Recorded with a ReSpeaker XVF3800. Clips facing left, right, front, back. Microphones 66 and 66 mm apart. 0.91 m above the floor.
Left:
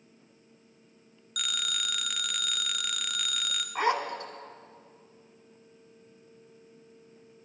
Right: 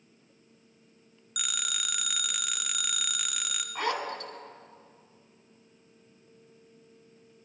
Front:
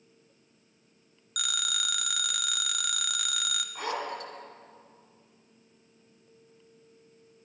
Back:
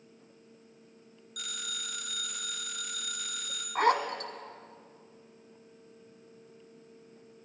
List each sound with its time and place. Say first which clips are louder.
1.4 s a phone ringing: left 2 dB, front 8 dB; 5° right, 0.8 m
3.8 s a zipper: left 4 dB, back 9 dB; 155° left, 1.3 m